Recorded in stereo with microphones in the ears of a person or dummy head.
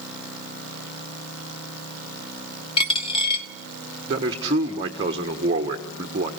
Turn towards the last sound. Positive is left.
turn(degrees=-25)  # may be behind; listen again after turning